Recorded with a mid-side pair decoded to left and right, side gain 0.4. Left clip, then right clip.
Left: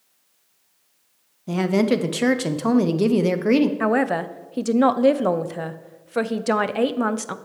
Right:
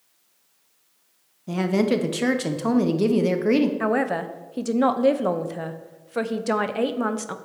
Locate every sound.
1.5 s a woman speaking: 20° left, 0.7 m
3.8 s a man speaking: 25° left, 0.5 m